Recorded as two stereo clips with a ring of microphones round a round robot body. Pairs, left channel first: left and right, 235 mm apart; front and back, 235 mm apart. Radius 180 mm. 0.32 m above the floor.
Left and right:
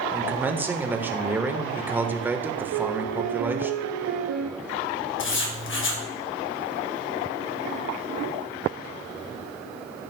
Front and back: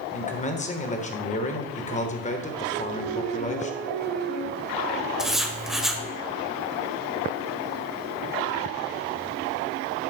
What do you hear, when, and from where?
0.1 s a man speaking: 15° right, 1.3 m
2.7 s a piano: 80° right, 2.5 m
5.2 s writing: 90° left, 1.5 m